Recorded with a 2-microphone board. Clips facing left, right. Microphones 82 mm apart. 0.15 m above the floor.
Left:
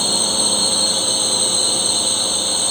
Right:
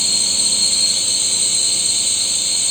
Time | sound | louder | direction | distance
0.0 | a drone | left 7 dB | 45° left (ahead or behind) | ?